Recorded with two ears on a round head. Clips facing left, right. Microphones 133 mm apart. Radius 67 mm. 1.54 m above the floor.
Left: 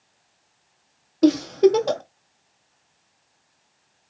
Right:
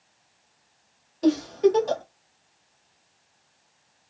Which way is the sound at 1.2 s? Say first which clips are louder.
Left 4 dB; 75° left (ahead or behind).